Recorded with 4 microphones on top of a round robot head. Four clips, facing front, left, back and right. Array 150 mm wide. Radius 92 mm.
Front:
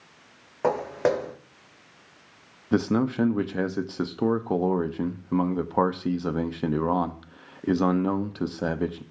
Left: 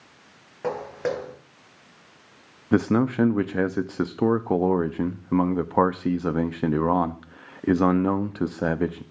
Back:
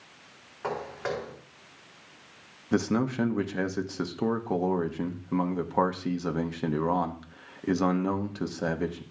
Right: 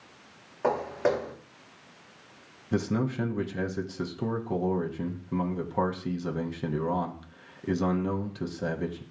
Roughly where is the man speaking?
Left.